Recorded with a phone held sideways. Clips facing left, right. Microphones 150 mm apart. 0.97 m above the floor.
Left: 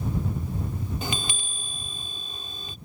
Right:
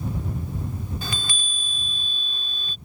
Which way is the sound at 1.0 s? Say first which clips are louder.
Left 2 dB; 20° left (ahead or behind).